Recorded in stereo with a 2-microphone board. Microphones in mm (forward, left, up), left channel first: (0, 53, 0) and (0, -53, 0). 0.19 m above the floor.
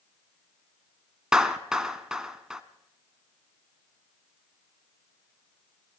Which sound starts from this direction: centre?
A clap, at 1.3 s.